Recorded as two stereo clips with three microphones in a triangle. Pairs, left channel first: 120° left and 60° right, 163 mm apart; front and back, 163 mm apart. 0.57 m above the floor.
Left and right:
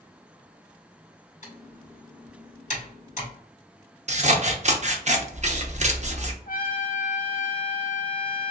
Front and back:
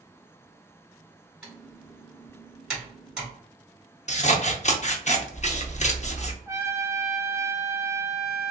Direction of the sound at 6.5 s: 105° left.